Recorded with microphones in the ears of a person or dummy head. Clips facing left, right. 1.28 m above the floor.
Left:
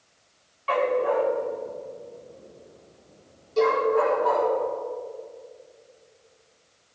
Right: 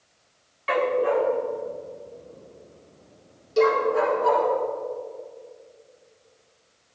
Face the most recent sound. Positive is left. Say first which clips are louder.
# right 2 dB
turn(degrees=-20)  # may be behind; listen again after turning